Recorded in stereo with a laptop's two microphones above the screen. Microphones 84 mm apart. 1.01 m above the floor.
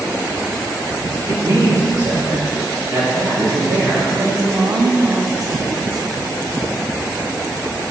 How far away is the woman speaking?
About 1.1 m.